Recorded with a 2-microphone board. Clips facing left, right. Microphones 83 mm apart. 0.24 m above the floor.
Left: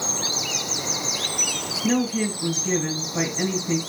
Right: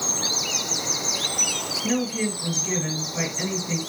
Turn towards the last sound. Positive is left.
turn(degrees=30)  # may be behind; listen again after turning